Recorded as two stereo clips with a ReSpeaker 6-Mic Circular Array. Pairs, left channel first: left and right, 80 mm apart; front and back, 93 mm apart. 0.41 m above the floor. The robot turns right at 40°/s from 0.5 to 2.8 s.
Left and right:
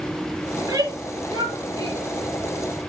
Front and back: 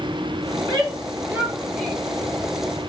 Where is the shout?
140° right, 8 m; by 2.0 s 80° right, 8 m.